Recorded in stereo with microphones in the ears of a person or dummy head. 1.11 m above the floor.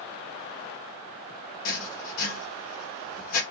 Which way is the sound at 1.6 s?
55° left (ahead or behind).